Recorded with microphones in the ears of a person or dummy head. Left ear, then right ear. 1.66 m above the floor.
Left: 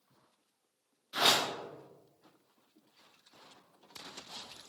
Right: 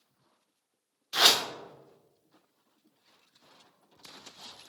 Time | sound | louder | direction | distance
1.1 | a whoosh | right 5 dB | 40° right (ahead or behind) | 0.5 m